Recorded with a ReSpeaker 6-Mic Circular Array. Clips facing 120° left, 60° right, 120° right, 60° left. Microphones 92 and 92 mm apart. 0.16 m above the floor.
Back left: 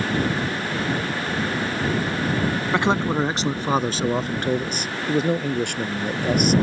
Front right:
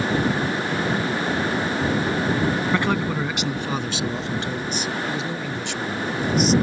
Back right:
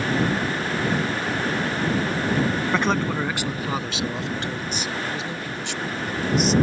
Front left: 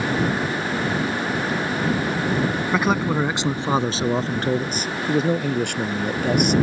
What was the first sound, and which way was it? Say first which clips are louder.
A man speaking: back left 2 dB, front left 4 dB; 140° left.